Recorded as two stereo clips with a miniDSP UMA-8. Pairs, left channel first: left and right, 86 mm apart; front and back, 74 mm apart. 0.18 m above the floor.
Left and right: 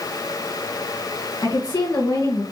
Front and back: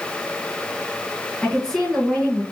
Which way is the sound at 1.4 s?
75° left.